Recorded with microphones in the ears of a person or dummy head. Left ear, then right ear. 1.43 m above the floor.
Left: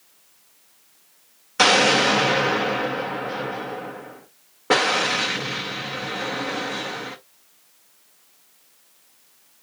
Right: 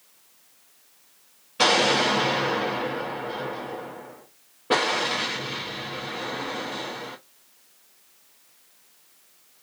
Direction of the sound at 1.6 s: 50° left (ahead or behind).